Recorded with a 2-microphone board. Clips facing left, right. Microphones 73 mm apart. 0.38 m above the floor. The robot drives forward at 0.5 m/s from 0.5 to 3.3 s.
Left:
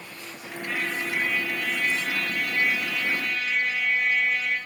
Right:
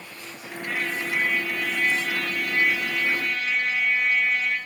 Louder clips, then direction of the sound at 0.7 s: Right 1 dB; 50° right (ahead or behind).